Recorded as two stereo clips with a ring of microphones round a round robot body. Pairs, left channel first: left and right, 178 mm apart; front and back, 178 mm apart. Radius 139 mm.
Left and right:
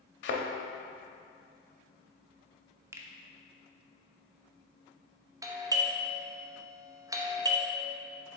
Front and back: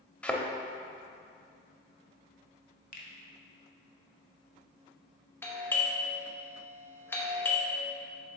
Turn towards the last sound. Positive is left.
turn(degrees=-55)